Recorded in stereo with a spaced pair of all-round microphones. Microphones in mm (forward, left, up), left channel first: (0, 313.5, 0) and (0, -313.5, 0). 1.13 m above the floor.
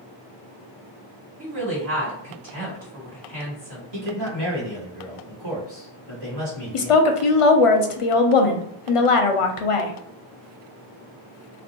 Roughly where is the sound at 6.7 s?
Left.